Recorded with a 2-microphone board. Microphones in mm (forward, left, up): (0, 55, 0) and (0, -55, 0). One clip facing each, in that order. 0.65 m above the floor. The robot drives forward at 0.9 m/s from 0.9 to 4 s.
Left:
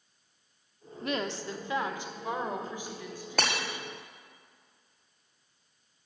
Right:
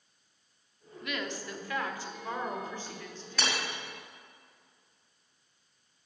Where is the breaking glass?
55° left (ahead or behind), 1.9 m; by 3.6 s 60° left (ahead or behind), 1.8 m.